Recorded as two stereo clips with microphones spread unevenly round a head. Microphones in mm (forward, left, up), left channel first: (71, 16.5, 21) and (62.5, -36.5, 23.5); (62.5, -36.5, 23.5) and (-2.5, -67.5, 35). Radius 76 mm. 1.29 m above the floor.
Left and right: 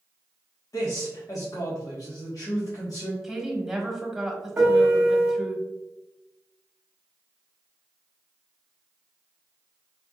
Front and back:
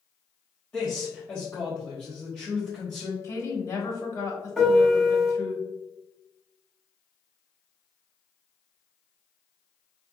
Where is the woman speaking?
15° right, 1.6 m.